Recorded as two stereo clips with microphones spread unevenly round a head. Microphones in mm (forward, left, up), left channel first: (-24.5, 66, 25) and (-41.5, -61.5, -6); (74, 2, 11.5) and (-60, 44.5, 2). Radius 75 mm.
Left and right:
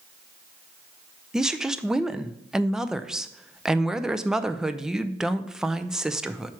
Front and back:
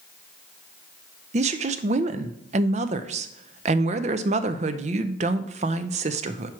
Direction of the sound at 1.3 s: 175° right.